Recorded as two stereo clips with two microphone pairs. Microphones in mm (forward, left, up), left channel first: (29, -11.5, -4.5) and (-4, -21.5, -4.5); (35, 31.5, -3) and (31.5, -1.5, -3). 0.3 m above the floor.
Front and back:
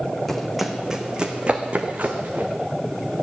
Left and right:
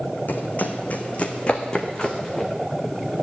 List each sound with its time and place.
0.3 s running footsteps: 100° left, 1.1 m; by 2.5 s 155° left, 1.9 m